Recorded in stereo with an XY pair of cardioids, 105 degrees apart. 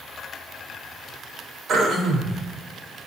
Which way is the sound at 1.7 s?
65° right.